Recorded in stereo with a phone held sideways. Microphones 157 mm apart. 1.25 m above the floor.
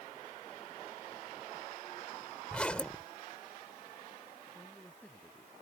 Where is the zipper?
5° left (ahead or behind).